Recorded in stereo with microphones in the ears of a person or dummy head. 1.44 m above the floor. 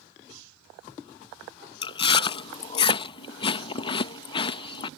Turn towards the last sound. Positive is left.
turn(degrees=30)  # may be behind; listen again after turning